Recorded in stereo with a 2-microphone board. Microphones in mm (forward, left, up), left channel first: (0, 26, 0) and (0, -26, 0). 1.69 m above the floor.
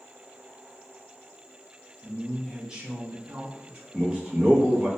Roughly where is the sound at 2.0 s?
Centre.